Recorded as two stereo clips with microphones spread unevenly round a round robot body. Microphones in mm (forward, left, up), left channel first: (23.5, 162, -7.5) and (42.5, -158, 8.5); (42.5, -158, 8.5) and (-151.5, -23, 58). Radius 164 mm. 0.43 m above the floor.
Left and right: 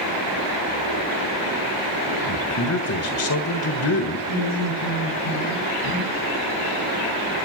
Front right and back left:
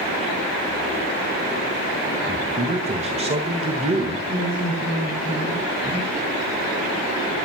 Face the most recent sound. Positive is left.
turn(degrees=75)